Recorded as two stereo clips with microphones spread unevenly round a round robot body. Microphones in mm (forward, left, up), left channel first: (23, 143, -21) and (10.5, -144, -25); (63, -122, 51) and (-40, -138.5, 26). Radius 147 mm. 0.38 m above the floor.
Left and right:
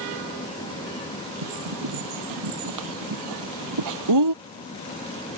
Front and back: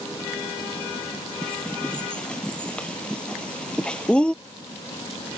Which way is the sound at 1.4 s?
70° right.